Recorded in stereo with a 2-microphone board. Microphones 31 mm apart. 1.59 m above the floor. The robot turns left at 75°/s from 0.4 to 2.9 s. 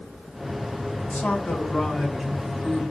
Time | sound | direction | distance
0.9 | a man speaking | 90° left | 1.6 m